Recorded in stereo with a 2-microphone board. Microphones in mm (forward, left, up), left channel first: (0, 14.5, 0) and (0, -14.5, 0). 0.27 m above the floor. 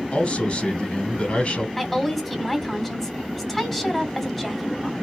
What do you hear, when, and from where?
0.1 s a man speaking: 40° left (ahead or behind), 2.5 m
1.8 s a woman speaking: 10° left (ahead or behind), 1.7 m